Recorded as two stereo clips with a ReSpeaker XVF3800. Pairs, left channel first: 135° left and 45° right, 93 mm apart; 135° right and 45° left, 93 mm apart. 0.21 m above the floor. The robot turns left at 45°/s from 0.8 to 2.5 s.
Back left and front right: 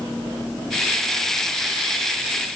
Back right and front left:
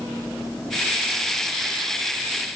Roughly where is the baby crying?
No baby crying in this recording.